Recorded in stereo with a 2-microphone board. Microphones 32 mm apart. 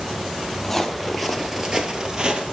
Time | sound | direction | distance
0.6 | footsteps | 10° left (ahead or behind) | 1.7 m